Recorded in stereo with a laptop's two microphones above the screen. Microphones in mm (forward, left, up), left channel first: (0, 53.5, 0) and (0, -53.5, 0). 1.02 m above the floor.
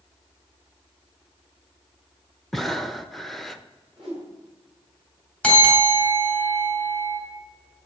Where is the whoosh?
5° right (ahead or behind), 4 m.